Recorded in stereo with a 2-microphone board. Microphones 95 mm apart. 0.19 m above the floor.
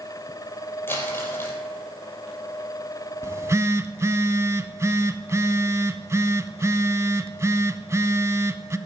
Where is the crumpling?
20° left (ahead or behind), 5 m.